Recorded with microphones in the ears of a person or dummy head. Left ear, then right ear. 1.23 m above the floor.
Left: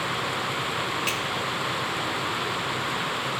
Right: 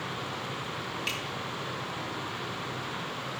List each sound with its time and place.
1.1 s a finger snap: 10° left (ahead or behind), 1.5 m